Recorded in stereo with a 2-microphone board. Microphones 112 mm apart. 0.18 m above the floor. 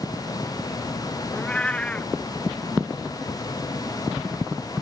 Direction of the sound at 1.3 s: 10° left (ahead or behind).